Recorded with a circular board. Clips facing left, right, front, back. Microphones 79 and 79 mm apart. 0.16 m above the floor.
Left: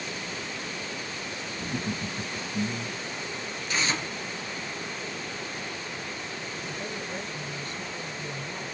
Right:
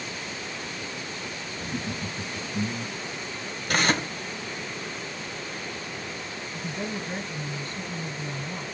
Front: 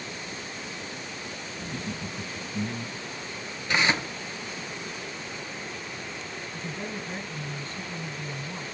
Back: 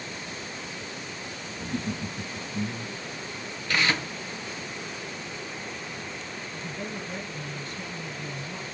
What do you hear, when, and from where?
1.6 s laughter: 140° left, 1.3 m; by 3.0 s 30° right, 1.3 m
3.7 s tearing paper: 70° right, 0.7 m
6.5 s a woman speaking: 55° right, 2.5 m